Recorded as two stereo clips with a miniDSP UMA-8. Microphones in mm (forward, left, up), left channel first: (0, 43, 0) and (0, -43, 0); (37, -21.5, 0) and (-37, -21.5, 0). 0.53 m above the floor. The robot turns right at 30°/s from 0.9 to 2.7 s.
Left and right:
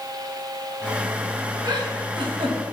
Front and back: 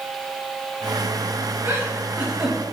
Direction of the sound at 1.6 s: 125° right.